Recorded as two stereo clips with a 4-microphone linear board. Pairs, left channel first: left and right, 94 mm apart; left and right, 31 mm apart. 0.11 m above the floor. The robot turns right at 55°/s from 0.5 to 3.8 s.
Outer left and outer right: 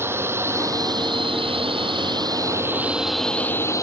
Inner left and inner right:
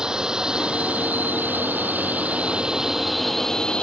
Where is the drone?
25° right (ahead or behind); by 3.8 s 35° left (ahead or behind).